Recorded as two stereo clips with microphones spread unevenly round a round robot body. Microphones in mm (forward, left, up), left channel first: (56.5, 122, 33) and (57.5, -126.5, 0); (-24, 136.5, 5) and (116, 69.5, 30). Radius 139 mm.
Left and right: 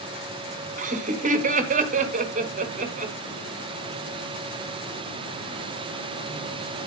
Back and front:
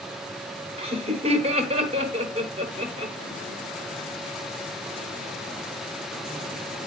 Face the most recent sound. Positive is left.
turn(degrees=-70)